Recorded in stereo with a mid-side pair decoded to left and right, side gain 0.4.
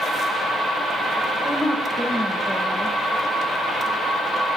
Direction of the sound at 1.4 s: Straight ahead.